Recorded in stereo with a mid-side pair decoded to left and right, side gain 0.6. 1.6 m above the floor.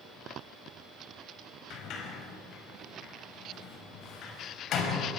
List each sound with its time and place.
1.7 s a sliding door: 55° left, 5 m